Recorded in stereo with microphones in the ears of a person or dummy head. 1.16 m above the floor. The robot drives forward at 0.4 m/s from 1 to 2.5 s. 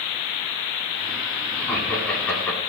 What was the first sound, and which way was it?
Laughter, 5° left (ahead or behind).